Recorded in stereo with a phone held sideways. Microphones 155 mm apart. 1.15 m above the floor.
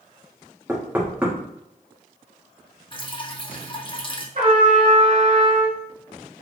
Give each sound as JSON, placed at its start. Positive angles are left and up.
{"t": 0.7, "sound": "knocking", "side_deg": -10, "distance_m": 1.3}
{"t": 2.9, "sound": "dripping", "side_deg": 35, "distance_m": 0.7}
{"t": 4.3, "sound": "a trumpet", "side_deg": -55, "distance_m": 1.6}